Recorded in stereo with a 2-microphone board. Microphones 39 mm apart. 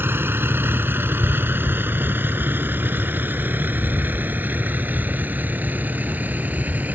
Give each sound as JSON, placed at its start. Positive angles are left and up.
{"t": 0.0, "sound": "a vehicle", "side_deg": -70}